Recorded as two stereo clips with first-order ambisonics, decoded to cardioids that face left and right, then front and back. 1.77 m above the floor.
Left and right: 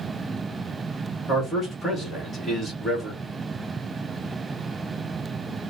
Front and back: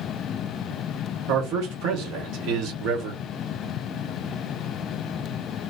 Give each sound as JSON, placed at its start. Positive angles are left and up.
{"t": 1.3, "sound": "a man speaking", "azimuth_deg": 160, "distance_m": 1.5}